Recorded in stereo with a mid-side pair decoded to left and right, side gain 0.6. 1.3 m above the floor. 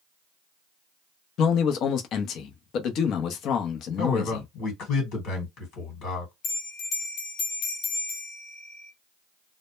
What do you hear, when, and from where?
1.4 s a man speaking: 60° left, 0.7 m
4.0 s a man speaking: 60° left, 1.4 m
6.4 s a bell: 60° left, 1.1 m